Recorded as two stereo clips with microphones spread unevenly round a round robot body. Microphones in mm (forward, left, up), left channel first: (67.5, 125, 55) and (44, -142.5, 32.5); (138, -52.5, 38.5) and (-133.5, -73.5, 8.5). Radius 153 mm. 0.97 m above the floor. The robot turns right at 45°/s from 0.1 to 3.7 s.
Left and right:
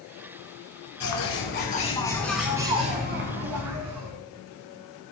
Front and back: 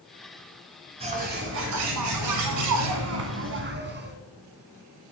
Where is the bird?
110° left, 1.4 m; by 4.2 s 130° right, 1.4 m.